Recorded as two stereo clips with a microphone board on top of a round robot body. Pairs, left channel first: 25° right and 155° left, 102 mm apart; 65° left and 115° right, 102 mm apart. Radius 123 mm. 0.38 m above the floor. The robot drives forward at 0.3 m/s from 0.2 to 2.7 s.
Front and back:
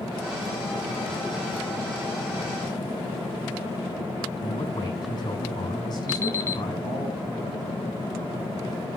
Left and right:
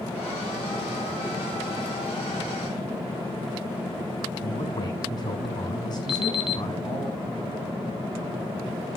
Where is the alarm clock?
40° left, 1.2 m.